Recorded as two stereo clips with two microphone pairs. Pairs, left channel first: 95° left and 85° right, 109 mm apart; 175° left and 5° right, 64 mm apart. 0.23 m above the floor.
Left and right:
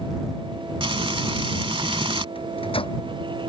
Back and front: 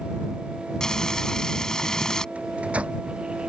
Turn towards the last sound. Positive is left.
turn(degrees=65)